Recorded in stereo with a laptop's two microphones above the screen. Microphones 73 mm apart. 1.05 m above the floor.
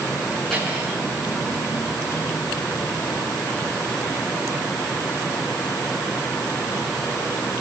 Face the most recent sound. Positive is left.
turn(degrees=10)  # may be behind; listen again after turning